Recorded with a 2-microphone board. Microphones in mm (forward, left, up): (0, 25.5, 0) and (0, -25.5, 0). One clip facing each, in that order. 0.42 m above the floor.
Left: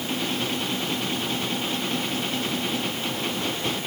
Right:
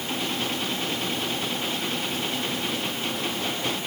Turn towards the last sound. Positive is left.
No sound to turn to.